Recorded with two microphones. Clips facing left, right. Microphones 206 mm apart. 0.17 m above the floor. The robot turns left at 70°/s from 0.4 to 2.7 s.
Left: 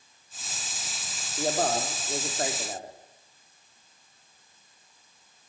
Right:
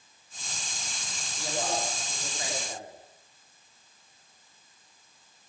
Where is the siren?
I don't hear a siren.